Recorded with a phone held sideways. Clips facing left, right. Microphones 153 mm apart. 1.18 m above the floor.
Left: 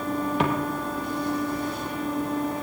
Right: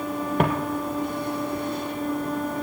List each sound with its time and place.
0.4 s footsteps: 50° right (ahead or behind), 2 m; by 2.6 s 55° right (ahead or behind), 4 m